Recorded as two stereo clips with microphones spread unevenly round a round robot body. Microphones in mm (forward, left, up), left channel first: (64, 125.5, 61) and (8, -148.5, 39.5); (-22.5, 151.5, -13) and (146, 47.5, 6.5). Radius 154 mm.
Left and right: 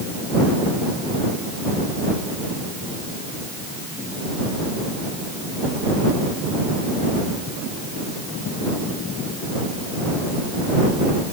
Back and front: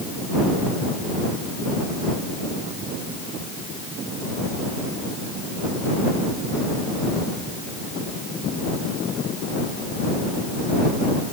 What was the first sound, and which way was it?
Only background noise.